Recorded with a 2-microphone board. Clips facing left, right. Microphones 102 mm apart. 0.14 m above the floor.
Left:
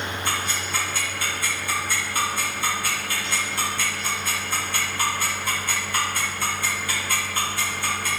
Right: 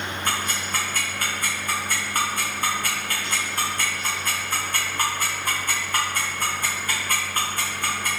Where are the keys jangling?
No keys jangling in this recording.